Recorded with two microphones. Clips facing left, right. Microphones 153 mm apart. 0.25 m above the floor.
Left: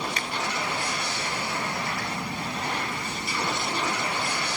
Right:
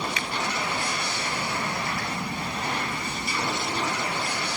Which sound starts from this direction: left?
A finger snap, at 0.2 s.